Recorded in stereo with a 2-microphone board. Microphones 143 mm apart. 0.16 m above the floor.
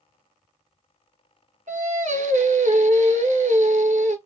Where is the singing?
70° right (ahead or behind), 0.7 m.